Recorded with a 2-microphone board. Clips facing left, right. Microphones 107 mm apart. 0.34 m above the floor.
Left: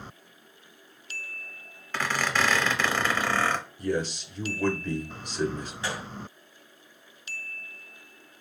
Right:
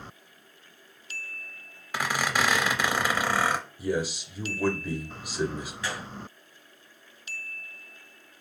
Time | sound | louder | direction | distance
1.9 | a squeak | even | 10° right (ahead or behind) | 0.7 m
3.8 | a man speaking | left 1 dB | 10° right (ahead or behind) | 0.9 m
5.8 | a gunshot | left 2 dB | 30° left (ahead or behind) | 1.7 m